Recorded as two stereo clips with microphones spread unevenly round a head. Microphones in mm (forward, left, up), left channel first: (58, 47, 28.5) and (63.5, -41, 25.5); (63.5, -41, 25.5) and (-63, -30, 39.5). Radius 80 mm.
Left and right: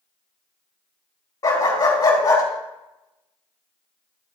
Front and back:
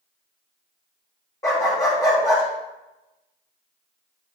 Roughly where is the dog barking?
Left.